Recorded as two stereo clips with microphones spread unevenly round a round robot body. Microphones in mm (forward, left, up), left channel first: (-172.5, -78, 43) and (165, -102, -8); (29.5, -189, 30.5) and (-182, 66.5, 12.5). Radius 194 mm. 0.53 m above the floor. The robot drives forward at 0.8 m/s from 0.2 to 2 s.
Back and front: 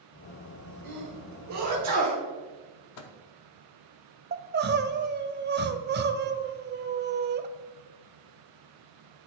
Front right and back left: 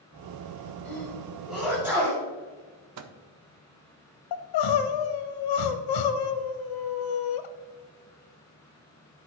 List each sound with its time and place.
0.8 s a sneeze: 40° left, 4 m; by 2.2 s 50° left, 3.5 m
3.0 s a microwave: 135° left, 0.6 m
4.3 s crying: 70° right, 0.8 m